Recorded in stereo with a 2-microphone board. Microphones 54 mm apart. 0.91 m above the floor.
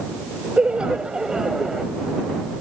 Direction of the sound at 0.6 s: 20° right (ahead or behind).